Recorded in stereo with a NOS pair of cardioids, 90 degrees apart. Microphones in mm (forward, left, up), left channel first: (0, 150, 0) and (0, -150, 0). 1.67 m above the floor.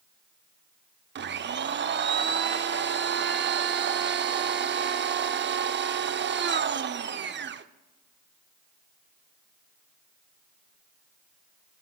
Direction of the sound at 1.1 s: 40° right.